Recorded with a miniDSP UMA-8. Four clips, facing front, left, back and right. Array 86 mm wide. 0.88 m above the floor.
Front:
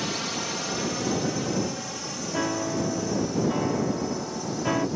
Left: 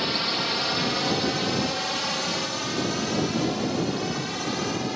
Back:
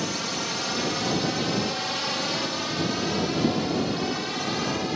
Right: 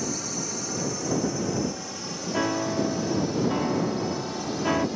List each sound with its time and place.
0.0 s a drone: 90° left; by 5.0 s 145° left
2.3 s a piano: 60° right